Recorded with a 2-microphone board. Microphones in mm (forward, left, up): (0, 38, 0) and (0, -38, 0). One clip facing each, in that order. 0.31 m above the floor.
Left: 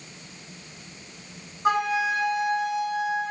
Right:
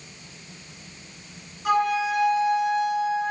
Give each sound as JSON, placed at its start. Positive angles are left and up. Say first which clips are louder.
{"t": 1.6, "sound": "a flute", "louder": "right 1 dB", "side_deg": 35, "distance_m": 0.6}